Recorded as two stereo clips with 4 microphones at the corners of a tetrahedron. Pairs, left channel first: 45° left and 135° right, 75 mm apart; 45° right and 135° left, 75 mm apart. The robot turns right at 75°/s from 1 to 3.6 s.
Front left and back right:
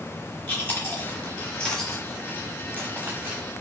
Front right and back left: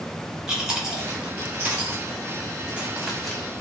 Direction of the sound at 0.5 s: 65° left.